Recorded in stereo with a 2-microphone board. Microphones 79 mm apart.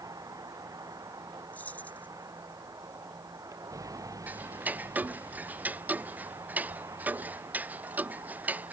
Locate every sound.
0.0 s a vehicle: 50° right (ahead or behind); by 8.7 s 40° right (ahead or behind)
1.5 s keys jangling: 20° left (ahead or behind)
4.3 s ticking: 20° right (ahead or behind)